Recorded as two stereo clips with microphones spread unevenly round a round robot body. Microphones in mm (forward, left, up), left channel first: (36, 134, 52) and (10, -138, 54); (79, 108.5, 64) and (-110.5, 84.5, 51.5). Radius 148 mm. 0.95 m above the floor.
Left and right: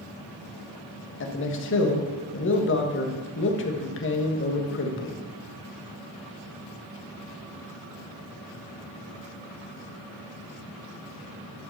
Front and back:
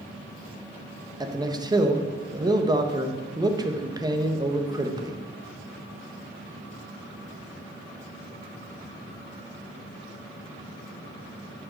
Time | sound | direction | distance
1.2 | a man speaking | 120° left | 1.3 m